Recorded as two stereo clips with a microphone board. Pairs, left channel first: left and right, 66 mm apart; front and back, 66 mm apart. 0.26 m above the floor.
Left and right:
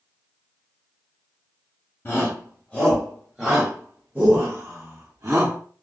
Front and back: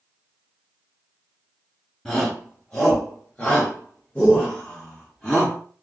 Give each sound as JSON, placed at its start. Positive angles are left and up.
{"t": 2.0, "sound": "a shout", "azimuth_deg": 70, "distance_m": 1.3}